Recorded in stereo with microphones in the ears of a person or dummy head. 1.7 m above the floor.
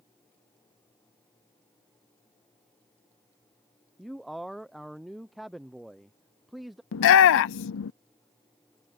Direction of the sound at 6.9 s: 65° left (ahead or behind).